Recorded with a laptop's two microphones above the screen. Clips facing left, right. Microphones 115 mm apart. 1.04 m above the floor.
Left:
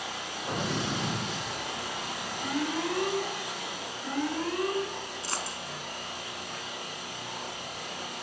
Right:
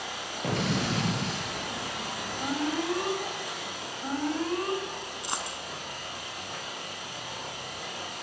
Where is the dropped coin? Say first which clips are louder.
Right 2 dB; 20° right (ahead or behind), 2.5 m.